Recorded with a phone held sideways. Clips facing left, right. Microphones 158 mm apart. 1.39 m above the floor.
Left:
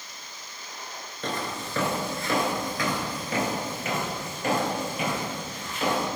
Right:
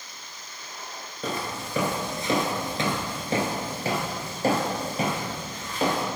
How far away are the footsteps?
About 1.4 m.